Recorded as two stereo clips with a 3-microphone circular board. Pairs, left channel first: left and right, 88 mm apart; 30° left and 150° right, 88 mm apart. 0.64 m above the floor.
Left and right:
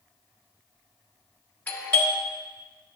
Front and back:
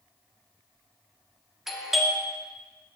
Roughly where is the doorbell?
Behind left.